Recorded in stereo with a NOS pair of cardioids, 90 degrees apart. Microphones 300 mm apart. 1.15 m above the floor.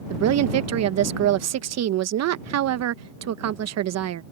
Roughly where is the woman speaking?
Ahead right.